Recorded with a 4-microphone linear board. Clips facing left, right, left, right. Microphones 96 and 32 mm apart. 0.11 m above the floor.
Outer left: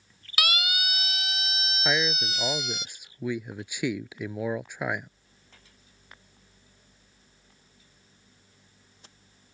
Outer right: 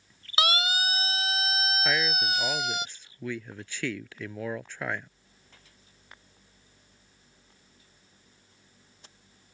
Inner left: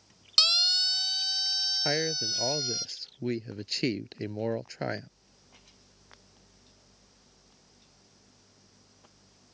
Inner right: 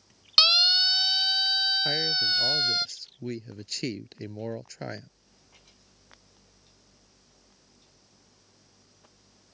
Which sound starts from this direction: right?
A siren, at 0.4 s.